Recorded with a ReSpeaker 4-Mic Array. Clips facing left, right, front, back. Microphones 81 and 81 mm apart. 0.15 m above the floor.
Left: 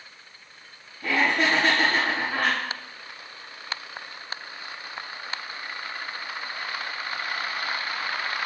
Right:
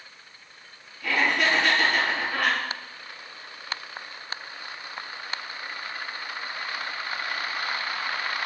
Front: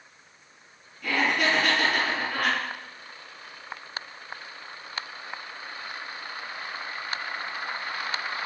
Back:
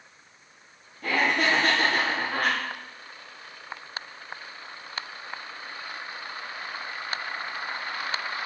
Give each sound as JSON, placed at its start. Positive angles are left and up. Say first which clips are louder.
{"t": 1.0, "sound": "laughter", "louder": "left 1 dB, back 1 dB", "azimuth_deg": 140, "distance_m": 3.0}